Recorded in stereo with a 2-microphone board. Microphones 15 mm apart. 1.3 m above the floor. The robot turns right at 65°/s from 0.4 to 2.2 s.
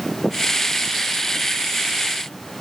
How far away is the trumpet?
No trumpet in this recording.